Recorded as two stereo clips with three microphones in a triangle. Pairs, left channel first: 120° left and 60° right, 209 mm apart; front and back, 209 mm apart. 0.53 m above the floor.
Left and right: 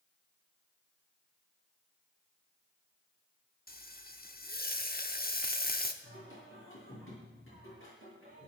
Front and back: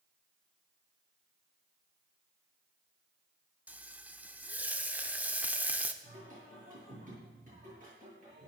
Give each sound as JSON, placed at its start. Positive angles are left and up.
{"t": 3.7, "sound": "frying", "azimuth_deg": 100, "distance_m": 1.0}
{"t": 6.0, "sound": "singing", "azimuth_deg": 130, "distance_m": 8.0}